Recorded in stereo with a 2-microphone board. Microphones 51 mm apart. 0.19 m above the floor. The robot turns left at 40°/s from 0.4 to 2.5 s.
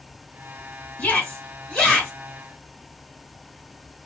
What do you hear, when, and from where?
1.0 s a shout: 30° left (ahead or behind), 1.9 m; by 2.1 s 10° left (ahead or behind), 1.9 m